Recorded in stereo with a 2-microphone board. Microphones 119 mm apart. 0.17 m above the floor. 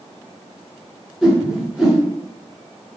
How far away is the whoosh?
About 1.7 m.